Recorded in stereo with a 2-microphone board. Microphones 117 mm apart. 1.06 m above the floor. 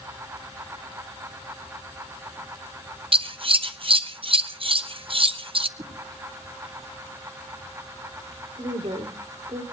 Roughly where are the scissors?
Right.